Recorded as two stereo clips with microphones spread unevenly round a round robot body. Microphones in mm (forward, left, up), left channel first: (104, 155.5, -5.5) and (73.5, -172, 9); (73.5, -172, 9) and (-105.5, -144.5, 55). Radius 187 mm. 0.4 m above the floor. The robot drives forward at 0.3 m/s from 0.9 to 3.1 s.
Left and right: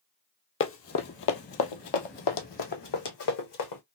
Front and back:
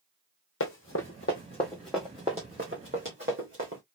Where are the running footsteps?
30° left, 1.0 m; by 3.8 s 120° left, 1.9 m.